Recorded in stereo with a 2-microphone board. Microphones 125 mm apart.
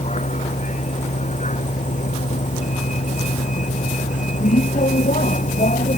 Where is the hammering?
I don't hear hammering.